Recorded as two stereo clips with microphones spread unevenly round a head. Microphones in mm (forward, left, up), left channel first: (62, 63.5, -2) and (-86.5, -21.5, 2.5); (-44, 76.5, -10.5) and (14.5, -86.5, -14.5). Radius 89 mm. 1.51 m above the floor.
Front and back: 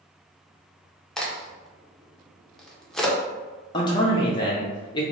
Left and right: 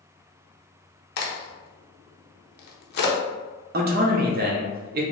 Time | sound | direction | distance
1.2 | a crack | 120° left | 0.7 m
3.7 | a man speaking | 35° right | 0.6 m